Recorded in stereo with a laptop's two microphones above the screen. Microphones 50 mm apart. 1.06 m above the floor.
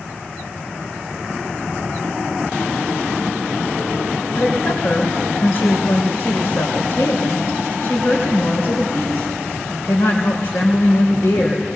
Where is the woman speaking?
70° left (ahead or behind), 3.5 m.